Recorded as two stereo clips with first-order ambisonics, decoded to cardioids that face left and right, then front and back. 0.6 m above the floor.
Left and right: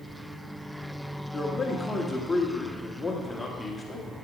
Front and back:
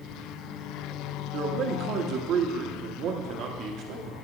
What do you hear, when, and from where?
1.3 s a man speaking: 170° left, 1.1 m